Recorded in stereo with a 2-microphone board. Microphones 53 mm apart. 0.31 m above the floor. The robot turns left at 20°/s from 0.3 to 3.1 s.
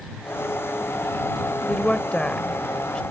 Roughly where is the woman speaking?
Left.